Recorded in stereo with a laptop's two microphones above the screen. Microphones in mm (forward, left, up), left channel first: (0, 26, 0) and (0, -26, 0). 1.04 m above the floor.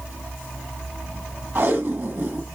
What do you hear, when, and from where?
1.6 s tape being pulled: 55° right (ahead or behind), 1.7 m